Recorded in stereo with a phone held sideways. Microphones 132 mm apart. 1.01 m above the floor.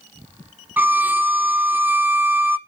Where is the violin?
15° right (ahead or behind), 1.1 m.